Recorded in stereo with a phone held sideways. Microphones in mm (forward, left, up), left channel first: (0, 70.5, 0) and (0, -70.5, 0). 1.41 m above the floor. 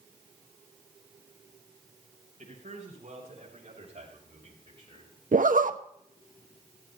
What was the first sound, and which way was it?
A man speaking, 60° right (ahead or behind).